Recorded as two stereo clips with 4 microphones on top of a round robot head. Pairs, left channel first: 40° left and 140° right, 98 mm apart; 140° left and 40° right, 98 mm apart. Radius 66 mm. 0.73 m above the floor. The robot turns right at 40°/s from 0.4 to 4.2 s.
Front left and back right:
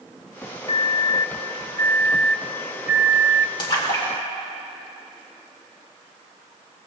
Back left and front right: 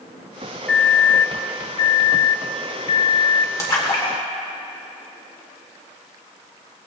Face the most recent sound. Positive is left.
turn(degrees=105)